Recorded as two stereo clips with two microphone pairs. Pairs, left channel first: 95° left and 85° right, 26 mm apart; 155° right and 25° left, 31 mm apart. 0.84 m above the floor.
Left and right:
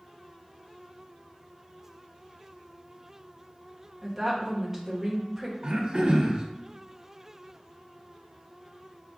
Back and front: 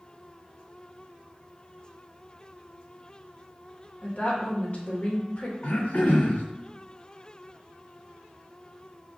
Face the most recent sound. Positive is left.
turn(degrees=-120)